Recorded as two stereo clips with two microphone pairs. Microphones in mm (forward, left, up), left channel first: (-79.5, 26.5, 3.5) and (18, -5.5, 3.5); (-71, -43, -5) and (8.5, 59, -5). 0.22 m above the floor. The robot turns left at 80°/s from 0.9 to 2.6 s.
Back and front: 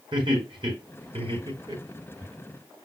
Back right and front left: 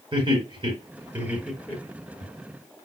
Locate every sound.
0.1 s laughter: 10° left, 4.5 m; by 2.3 s 100° right, 4.5 m